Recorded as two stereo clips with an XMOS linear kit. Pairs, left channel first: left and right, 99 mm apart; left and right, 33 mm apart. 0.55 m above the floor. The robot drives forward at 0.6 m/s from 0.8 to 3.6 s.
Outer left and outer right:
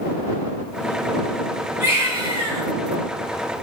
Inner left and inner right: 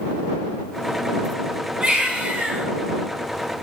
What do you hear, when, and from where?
1.8 s a baby crying: 25° right (ahead or behind), 4 m